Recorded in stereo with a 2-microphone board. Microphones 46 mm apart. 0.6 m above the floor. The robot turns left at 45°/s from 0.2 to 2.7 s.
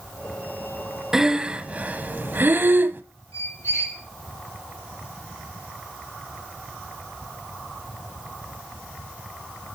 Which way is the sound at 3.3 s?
85° left.